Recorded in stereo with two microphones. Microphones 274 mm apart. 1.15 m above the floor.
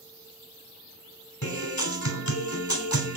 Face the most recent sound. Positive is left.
turn(degrees=70)  # may be behind; listen again after turning